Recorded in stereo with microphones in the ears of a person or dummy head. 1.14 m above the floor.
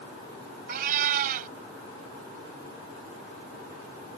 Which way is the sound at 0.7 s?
55° right (ahead or behind).